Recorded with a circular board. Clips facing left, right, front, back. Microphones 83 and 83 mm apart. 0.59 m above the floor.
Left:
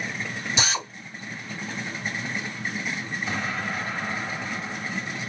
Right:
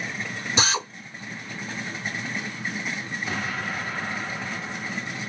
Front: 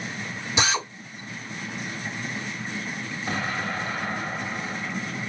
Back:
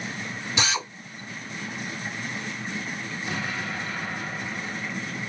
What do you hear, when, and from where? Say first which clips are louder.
0.6 s a drill: right 3 dB, front 3 dB; 65° right, 1.9 m
3.3 s an explosion: left 1 dB, front 3 dB; 5° right, 1.3 m